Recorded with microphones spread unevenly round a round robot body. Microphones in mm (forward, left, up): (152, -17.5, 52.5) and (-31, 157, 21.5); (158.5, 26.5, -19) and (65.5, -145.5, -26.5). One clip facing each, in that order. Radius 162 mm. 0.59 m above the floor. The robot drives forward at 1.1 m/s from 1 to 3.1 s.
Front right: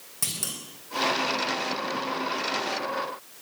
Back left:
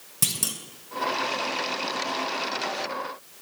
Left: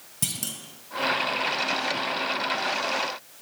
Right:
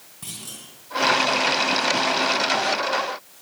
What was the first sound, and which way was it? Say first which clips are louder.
A clunk: back left 4 dB, left 5 dB; 100° left.